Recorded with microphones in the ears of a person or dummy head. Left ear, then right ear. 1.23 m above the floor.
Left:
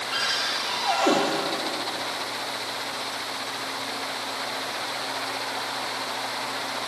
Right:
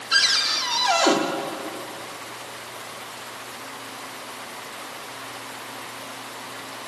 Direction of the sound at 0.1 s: 45° right (ahead or behind).